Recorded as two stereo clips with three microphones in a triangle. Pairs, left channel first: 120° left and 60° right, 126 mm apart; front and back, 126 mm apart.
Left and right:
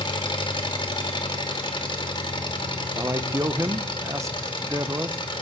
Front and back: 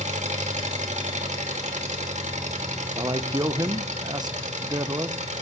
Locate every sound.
0.0 s an engine running: 170° left, 1.3 m
3.0 s a man speaking: 125° right, 0.6 m